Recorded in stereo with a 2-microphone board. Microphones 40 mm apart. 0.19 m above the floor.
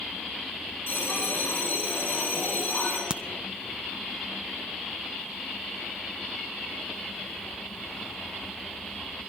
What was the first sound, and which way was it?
A bell, 50° left (ahead or behind).